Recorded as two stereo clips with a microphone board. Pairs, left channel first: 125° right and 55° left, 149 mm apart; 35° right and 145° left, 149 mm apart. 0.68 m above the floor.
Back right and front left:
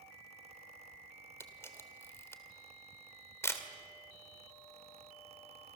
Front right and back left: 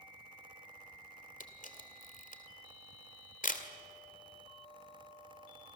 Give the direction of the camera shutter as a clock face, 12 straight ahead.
2 o'clock.